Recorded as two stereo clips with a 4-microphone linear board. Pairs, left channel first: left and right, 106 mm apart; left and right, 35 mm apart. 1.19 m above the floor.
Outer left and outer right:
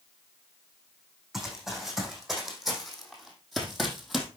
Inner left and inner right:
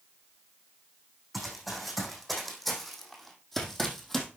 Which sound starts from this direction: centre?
Running footsteps, at 1.3 s.